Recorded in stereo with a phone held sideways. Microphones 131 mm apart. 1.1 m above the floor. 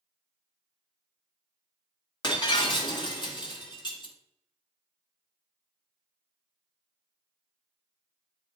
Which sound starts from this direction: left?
Breaking glass, at 2.2 s.